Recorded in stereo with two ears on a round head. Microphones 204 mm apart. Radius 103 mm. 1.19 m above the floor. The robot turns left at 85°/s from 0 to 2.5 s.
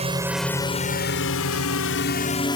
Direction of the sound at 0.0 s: 30° right (ahead or behind).